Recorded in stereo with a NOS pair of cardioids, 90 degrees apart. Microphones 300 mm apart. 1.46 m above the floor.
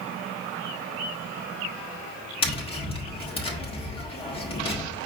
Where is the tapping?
20° left, 1.2 m.